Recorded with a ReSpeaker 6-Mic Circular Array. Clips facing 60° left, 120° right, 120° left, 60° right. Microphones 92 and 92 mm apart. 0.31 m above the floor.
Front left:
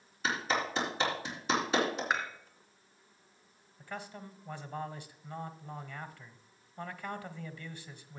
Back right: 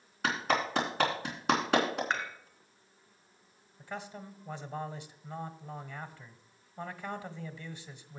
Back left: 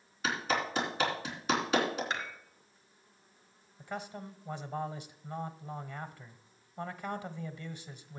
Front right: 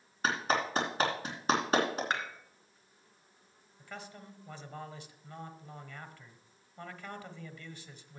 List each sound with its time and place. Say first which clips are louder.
0.2 s a clap: back right 2 dB, front right 2 dB; 105° right, 3.5 m
2.1 s dishes clattering: front left 1 dB, front right 2 dB; 20° right, 2.5 m
3.8 s a man speaking: back right 1 dB, back left 6 dB; straight behind, 1.2 m